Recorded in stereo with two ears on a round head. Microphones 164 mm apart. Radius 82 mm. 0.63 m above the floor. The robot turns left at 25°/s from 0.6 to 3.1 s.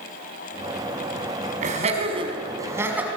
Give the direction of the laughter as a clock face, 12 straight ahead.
5 o'clock.